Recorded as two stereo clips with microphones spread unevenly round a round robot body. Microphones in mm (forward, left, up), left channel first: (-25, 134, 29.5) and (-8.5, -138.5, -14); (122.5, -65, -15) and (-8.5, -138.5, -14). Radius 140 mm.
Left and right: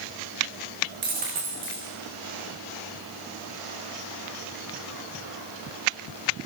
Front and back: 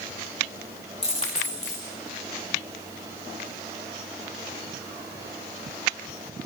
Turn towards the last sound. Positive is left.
turn(degrees=-25)